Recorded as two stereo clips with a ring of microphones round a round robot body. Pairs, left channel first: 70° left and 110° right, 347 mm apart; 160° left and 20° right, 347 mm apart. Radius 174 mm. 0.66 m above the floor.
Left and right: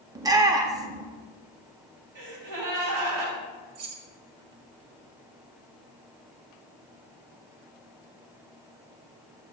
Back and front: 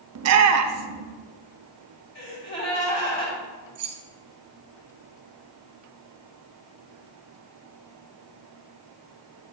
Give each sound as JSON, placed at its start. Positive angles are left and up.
{"t": 0.1, "sound": "a shout", "azimuth_deg": -35, "distance_m": 0.7}
{"t": 2.1, "sound": "a gasp", "azimuth_deg": -145, "distance_m": 3.5}
{"t": 3.8, "sound": "keys jangling", "azimuth_deg": -65, "distance_m": 1.7}